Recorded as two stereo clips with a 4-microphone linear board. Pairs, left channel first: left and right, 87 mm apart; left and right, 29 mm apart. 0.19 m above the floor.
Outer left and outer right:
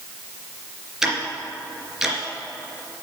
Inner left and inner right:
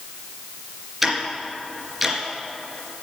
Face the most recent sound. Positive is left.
turn(degrees=-5)  # may be behind; listen again after turning